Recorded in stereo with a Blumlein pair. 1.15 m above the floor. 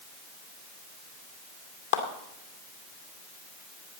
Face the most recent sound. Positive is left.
turn(degrees=60)